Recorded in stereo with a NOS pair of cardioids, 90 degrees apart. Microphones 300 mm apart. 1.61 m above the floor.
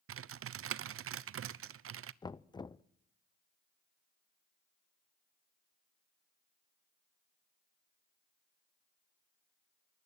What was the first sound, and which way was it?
Typing on a keyboard, 50° right.